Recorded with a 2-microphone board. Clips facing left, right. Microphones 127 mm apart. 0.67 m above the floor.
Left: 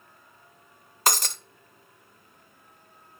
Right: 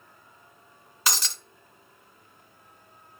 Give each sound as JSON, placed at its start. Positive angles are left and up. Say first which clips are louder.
{"t": 1.1, "sound": "breaking glass", "louder": "left 5 dB", "side_deg": 45, "distance_m": 0.5}